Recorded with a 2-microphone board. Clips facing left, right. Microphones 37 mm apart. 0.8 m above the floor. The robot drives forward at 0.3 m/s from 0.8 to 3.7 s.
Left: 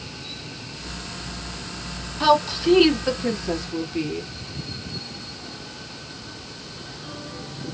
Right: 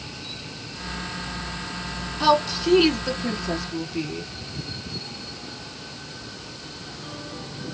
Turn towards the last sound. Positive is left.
turn(degrees=5)  # may be behind; listen again after turning